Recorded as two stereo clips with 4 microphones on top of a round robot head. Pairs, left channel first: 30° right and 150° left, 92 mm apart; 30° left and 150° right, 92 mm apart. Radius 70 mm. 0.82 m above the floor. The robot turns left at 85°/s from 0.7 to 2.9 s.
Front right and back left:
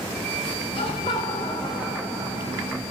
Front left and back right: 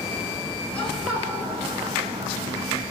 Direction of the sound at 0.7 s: 40° right.